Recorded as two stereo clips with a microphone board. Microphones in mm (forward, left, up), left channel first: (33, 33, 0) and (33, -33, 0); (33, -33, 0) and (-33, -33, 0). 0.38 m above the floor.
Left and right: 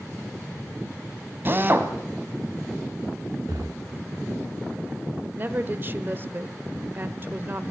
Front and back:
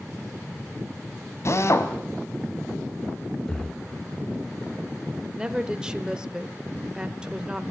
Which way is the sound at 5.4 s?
115° right.